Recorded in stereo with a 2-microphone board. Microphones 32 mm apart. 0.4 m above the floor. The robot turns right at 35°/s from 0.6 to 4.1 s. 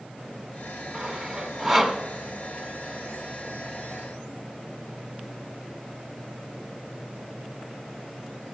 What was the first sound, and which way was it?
Sawing, 20° right (ahead or behind).